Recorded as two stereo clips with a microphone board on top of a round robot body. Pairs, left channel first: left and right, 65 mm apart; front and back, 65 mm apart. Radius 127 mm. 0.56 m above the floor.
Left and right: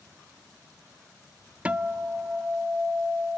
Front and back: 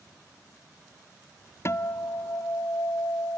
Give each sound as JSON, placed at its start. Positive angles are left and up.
{"t": 1.6, "sound": "a guitar", "azimuth_deg": -25, "distance_m": 0.7}